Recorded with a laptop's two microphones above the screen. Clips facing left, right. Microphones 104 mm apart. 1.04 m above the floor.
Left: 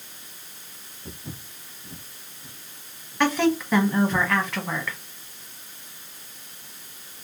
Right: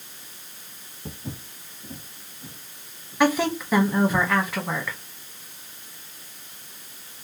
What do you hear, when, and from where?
1.1 s footsteps: 35° right (ahead or behind), 1.7 m; by 4.2 s 50° right (ahead or behind), 3.5 m
3.2 s a woman speaking: 10° right (ahead or behind), 0.8 m